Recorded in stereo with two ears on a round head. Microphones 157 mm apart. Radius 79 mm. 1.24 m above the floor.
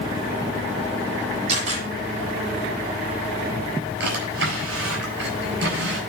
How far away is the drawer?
About 5 m.